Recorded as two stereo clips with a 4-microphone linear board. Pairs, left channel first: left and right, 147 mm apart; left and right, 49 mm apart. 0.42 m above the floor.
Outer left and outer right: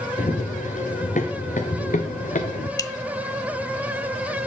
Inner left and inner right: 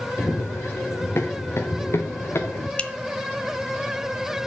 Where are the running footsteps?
60° left (ahead or behind), 3 m; by 2.7 s 65° left (ahead or behind), 1.6 m.